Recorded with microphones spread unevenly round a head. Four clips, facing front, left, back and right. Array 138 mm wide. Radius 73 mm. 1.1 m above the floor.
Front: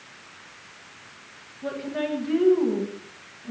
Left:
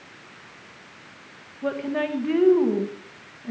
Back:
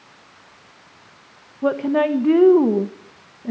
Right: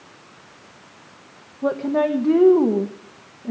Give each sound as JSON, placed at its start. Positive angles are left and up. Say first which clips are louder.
{"t": 1.6, "sound": "a woman speaking", "louder": "right 6 dB, back 11 dB", "azimuth_deg": -145, "distance_m": 1.4}